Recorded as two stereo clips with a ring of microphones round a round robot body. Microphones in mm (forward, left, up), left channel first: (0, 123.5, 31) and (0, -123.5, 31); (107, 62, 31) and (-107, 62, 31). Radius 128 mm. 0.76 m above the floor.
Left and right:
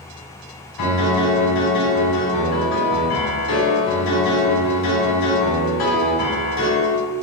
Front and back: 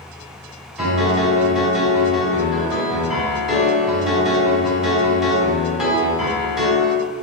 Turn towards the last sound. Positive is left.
turn(degrees=95)